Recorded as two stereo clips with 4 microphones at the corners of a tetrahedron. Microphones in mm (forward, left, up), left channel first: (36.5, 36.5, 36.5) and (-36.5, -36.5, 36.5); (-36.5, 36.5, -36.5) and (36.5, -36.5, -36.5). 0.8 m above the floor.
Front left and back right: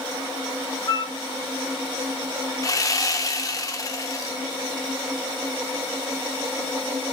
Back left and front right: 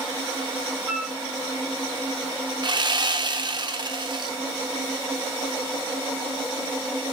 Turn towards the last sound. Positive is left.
turn(degrees=-5)